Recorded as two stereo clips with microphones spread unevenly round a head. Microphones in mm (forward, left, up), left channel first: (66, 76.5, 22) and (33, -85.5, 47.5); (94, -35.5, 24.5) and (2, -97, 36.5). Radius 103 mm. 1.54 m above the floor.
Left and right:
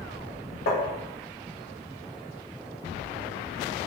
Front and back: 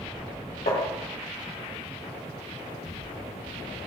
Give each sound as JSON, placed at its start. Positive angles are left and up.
{"t": 0.7, "sound": "tapping", "azimuth_deg": 60, "distance_m": 2.5}